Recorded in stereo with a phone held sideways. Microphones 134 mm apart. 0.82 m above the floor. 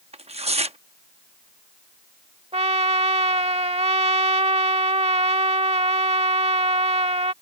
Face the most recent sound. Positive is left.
turn(degrees=-50)  # may be behind; listen again after turning